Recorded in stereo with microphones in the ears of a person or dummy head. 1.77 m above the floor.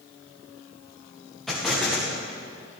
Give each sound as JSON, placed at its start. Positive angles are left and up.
{"t": 1.5, "sound": "an explosion", "side_deg": 5, "distance_m": 1.1}